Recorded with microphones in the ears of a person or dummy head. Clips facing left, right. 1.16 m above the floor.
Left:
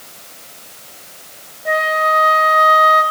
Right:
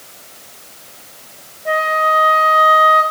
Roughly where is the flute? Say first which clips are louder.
Even; centre.